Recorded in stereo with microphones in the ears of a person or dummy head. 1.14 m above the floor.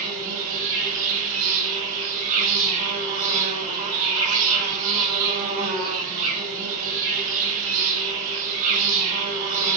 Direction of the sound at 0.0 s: 45° right (ahead or behind).